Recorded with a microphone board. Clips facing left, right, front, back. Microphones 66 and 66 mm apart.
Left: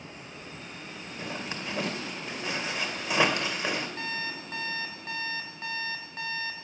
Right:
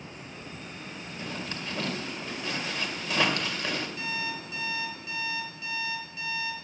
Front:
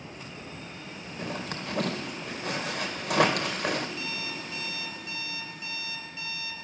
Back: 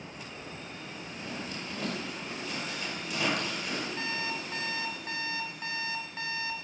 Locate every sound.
1.2 s a zipper: 20° left, 2 m
4.0 s an alarm clock: 135° left, 3 m